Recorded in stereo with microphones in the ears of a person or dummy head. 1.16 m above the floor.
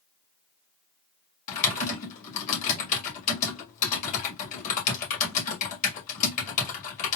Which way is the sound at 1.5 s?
45° left (ahead or behind).